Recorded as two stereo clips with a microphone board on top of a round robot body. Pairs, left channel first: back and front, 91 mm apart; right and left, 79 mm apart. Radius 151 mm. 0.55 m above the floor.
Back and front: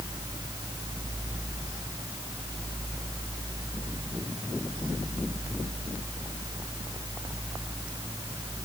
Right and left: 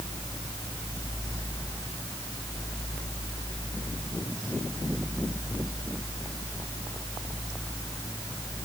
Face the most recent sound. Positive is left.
No sound to turn to.